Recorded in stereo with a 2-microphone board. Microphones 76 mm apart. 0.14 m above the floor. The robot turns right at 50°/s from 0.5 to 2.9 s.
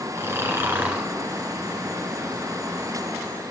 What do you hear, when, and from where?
0.1 s snoring: 50° right, 2 m; by 1.1 s 20° right, 2 m